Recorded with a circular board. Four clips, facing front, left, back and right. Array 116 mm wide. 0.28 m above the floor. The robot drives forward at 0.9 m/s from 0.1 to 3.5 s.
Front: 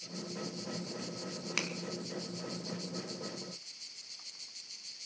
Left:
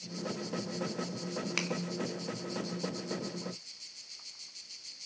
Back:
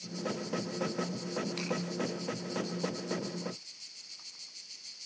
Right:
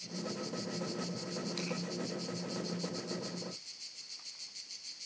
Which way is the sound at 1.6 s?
50° left.